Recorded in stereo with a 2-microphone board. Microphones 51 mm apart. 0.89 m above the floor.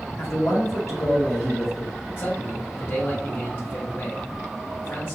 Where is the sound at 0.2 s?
75° left (ahead or behind), 1.8 m.